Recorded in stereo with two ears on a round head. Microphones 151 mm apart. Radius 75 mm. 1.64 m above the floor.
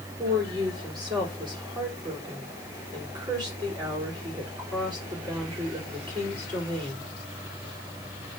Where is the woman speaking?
30° right (ahead or behind), 4.5 m.